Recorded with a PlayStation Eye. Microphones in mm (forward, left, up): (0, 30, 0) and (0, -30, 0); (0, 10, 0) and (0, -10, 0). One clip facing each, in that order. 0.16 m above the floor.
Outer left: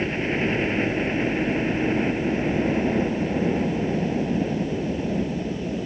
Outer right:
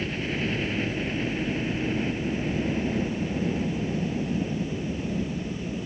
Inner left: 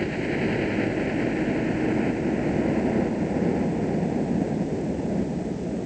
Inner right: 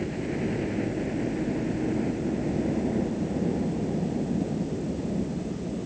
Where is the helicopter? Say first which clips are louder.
Outer left 5 dB, inner left 4 dB; 30° left (ahead or behind).